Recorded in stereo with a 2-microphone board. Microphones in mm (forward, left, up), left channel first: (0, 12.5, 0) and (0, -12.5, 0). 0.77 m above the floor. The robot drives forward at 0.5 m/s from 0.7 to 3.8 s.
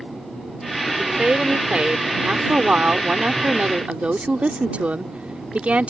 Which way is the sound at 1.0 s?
50° right (ahead or behind).